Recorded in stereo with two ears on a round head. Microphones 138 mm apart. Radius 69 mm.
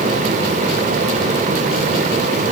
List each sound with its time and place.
Only background noise.